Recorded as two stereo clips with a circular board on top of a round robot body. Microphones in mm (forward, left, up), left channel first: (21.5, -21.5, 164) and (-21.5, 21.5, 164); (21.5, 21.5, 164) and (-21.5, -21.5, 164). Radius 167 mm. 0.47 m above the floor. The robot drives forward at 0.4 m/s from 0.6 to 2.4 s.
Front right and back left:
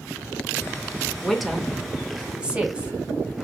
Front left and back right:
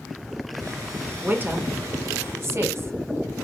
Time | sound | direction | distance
1.2 | a woman speaking | 125° right | 0.9 m